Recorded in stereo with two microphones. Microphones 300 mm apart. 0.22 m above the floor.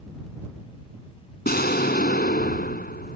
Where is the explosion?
30° left (ahead or behind).